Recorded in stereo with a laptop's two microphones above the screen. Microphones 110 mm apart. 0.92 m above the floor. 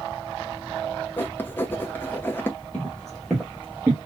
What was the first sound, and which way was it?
Writing, 20° left (ahead or behind).